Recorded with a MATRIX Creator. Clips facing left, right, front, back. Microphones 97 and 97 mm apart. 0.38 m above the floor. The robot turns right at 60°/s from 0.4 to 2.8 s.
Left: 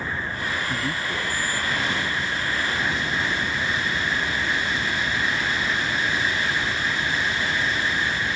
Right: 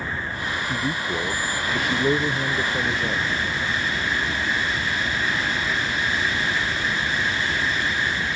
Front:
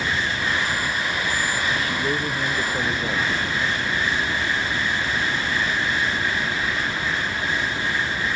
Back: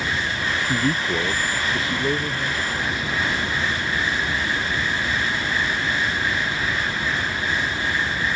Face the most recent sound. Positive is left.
turn(degrees=-55)